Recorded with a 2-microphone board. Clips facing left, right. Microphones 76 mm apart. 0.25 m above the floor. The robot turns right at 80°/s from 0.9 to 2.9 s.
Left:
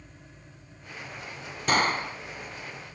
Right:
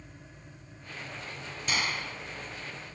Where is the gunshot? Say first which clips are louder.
Left 8 dB; 110° left; by 2.2 s 150° left.